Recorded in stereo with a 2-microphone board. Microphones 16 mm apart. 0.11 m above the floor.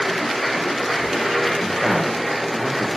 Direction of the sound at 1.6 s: 55° right (ahead or behind).